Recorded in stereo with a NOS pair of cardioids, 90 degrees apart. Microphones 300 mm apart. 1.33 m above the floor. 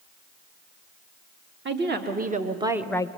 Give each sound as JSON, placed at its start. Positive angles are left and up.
{"t": 1.6, "sound": "a woman speaking", "azimuth_deg": -40, "distance_m": 2.0}